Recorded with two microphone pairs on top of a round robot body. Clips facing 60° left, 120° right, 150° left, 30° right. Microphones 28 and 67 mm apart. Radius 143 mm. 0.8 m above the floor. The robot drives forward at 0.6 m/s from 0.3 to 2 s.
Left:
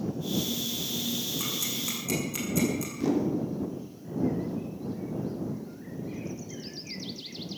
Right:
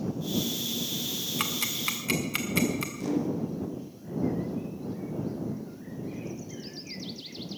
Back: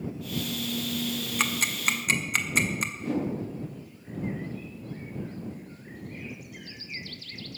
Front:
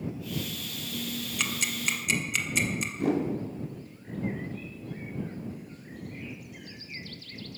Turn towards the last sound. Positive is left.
turn(degrees=-15)